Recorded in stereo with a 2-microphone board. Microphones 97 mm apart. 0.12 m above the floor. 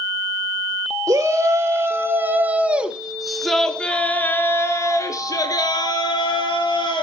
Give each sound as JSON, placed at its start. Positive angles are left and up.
{"t": 1.1, "sound": "a shout", "side_deg": -35, "distance_m": 2.0}